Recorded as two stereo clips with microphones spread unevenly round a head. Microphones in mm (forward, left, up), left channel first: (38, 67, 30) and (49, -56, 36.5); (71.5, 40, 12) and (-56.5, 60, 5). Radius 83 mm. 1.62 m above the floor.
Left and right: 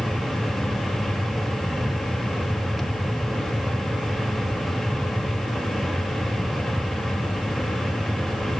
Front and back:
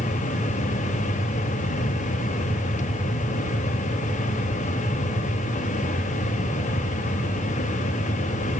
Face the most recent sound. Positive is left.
turn(degrees=5)